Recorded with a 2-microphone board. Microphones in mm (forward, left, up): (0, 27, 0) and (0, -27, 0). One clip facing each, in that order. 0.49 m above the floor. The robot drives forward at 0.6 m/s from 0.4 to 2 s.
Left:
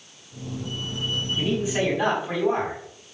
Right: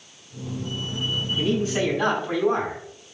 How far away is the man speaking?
About 4.5 m.